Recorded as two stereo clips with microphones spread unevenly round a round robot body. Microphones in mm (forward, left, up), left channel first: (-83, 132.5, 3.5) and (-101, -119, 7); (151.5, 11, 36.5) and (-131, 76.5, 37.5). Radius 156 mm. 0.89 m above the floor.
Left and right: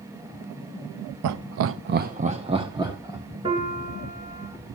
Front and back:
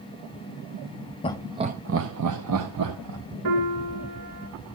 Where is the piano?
165° right, 3 m.